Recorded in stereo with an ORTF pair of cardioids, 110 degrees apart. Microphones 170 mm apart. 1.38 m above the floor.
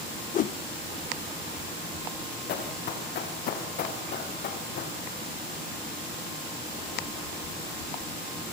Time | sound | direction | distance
0.3 | a whoosh | 55° left | 1.0 m
2.5 | running footsteps | 70° left | 6.5 m